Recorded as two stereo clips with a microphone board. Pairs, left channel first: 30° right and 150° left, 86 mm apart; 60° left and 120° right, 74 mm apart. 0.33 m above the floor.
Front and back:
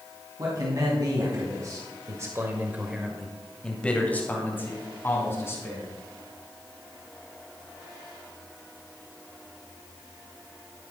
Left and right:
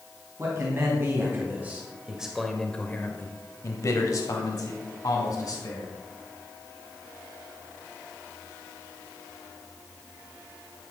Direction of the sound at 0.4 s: 170° right.